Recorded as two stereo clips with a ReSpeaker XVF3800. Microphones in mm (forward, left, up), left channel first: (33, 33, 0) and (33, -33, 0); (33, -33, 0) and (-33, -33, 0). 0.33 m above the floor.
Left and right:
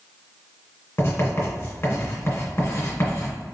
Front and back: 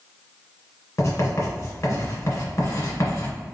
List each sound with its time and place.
1.0 s writing: 40° left, 2.0 m